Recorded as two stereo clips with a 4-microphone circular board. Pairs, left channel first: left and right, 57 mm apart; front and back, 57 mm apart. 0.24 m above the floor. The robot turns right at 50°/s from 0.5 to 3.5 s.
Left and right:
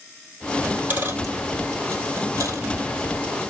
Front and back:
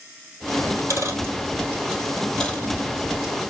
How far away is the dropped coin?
About 2 m.